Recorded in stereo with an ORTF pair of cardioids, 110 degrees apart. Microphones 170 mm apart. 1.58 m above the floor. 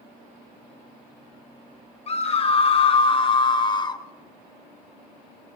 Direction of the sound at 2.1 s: 35° left.